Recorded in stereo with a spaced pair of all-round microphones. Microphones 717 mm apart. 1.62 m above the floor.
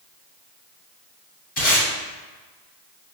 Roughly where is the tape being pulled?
Left.